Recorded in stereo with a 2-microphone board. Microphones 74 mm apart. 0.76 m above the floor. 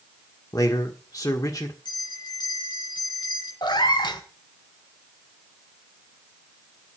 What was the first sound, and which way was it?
A man speaking, 55° left (ahead or behind).